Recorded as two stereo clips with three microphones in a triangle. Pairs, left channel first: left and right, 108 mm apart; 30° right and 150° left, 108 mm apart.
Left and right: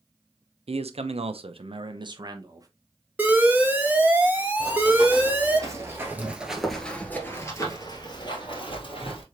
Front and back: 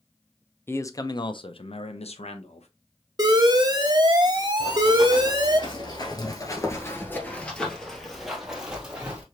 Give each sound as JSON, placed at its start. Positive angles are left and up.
{"t": 0.7, "sound": "a man speaking", "azimuth_deg": -100, "distance_m": 0.7}
{"t": 3.2, "sound": "an alarm", "azimuth_deg": -160, "distance_m": 0.9}
{"t": 4.6, "sound": "running footsteps", "azimuth_deg": -60, "distance_m": 2.0}